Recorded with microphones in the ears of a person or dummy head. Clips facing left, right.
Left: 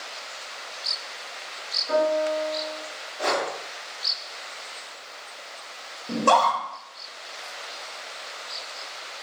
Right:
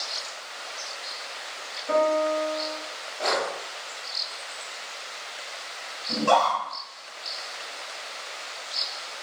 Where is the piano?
50° right (ahead or behind), 1.3 m.